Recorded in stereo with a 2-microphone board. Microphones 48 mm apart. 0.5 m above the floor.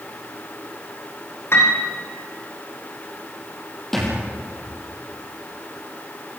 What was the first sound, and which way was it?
A piano, 55° left (ahead or behind).